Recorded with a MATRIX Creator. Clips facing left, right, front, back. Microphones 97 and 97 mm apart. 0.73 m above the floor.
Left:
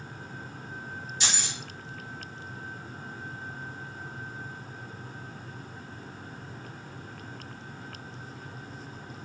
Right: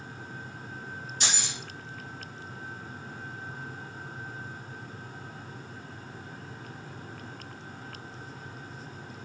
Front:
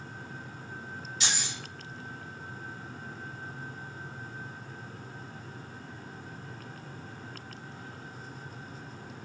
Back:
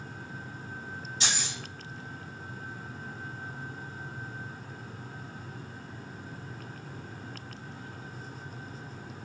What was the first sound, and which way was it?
Keys jangling, 125° right.